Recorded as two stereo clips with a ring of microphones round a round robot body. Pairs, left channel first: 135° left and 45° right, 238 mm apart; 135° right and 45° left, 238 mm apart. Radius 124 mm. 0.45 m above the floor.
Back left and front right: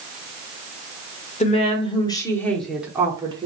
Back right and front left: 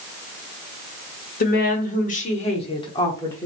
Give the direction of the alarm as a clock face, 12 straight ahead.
I don't hear an alarm.